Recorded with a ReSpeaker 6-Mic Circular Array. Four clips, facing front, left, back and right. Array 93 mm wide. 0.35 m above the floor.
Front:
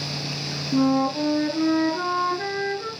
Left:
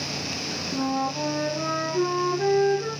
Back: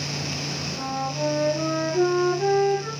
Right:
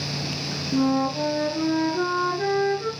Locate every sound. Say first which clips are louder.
0.7 s a flute: right 5 dB, front 10 dB; 30° right, 6.5 m